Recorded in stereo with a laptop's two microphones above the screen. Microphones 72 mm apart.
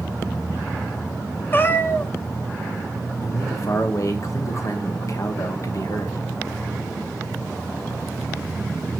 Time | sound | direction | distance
1.5 | a cat meowing | 30° left (ahead or behind) | 0.8 m
3.2 | a man speaking | 45° left (ahead or behind) | 1.2 m